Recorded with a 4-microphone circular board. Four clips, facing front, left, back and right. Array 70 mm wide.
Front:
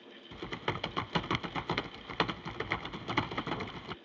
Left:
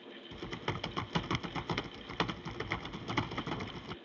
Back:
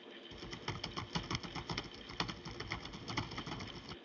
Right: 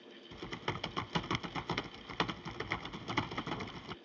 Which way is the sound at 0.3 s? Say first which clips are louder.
Left 1 dB, front 10 dB; straight ahead.